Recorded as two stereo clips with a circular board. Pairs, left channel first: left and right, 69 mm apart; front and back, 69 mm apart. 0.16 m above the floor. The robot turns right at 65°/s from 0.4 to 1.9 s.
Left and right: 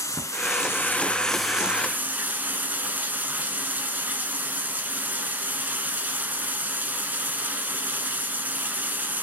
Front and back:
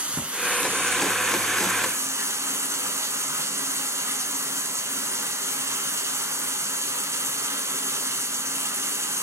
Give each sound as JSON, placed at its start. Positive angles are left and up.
{"t": 0.0, "sound": "running water", "azimuth_deg": 115, "distance_m": 0.9}